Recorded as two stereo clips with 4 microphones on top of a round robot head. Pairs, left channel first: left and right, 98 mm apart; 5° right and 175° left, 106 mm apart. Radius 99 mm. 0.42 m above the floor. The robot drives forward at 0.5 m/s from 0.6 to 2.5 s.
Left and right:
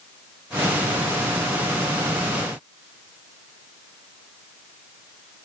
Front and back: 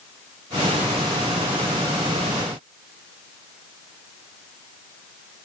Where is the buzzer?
No buzzer in this recording.